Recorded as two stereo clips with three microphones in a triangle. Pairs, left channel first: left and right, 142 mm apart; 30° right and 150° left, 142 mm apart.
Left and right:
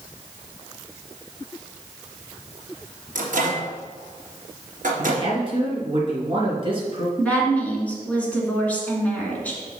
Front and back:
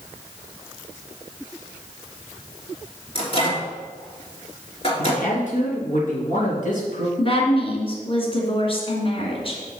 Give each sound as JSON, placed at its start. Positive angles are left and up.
{"t": 3.1, "sound": "a microwave", "azimuth_deg": -75, "distance_m": 3.0}
{"t": 5.0, "sound": "a man speaking", "azimuth_deg": -40, "distance_m": 3.0}
{"t": 7.2, "sound": "a woman speaking", "azimuth_deg": 10, "distance_m": 2.5}